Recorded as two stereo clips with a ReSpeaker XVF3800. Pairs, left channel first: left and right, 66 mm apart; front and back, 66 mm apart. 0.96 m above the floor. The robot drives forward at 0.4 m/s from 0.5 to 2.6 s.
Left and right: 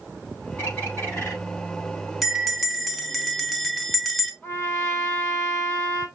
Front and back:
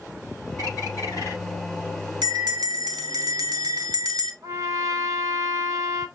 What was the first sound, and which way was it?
A bird, 35° left.